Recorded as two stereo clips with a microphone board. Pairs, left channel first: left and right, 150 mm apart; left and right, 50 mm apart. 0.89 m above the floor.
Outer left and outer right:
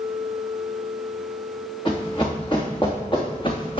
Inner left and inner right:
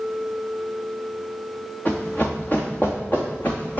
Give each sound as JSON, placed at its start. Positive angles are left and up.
{"t": 1.9, "sound": "running footsteps", "side_deg": 35, "distance_m": 4.0}